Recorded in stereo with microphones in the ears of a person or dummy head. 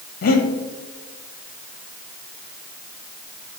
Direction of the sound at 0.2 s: 45° left (ahead or behind).